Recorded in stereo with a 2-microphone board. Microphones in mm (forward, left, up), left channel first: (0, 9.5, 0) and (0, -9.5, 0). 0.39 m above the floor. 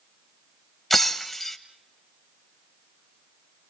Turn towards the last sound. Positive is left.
turn(degrees=10)  # may be behind; listen again after turning